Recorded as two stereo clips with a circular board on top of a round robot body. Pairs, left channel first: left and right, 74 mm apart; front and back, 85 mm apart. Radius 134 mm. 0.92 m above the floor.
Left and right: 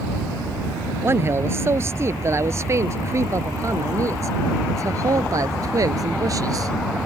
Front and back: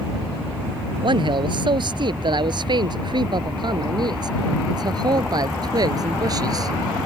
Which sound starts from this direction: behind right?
A man speaking, at 1.0 s.